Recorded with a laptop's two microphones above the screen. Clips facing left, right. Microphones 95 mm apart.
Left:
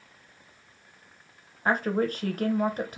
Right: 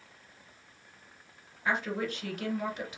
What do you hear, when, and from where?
1.6 s a woman speaking: 45° left (ahead or behind), 0.7 m